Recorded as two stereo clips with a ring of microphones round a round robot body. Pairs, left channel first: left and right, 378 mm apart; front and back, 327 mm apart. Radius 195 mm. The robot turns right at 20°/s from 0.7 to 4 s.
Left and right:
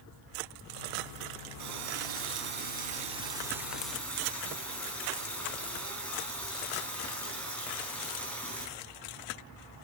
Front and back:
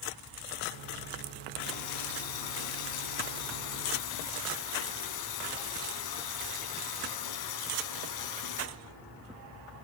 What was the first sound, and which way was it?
A running tap, 45° right.